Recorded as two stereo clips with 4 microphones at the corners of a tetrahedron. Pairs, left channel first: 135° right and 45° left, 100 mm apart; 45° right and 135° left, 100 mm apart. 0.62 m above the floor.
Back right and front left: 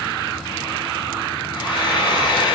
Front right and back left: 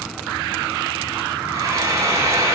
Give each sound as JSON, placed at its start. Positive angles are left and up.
{"t": 1.5, "sound": "frying", "azimuth_deg": -170, "distance_m": 1.9}